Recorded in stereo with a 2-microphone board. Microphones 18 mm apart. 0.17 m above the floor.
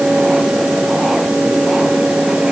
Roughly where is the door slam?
I don't hear a door slam.